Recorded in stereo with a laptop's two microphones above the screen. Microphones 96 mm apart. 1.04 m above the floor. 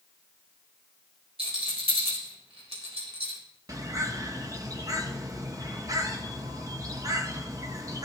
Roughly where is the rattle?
Right.